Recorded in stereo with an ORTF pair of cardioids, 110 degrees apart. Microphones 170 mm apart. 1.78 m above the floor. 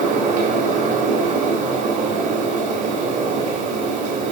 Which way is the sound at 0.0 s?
50° right.